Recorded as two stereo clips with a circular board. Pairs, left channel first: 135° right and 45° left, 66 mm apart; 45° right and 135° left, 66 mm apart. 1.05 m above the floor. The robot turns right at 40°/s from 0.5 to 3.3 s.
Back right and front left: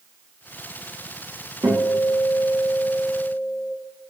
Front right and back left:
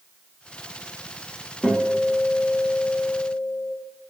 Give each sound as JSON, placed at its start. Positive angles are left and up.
{"t": 1.6, "sound": "a guitar", "azimuth_deg": 35, "distance_m": 1.1}